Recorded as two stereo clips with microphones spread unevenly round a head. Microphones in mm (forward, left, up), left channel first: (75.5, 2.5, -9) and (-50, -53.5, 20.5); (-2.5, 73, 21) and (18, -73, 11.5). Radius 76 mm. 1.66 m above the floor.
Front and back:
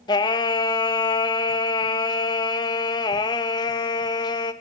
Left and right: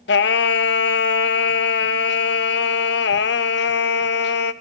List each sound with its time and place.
0.1 s singing: 85° left, 0.7 m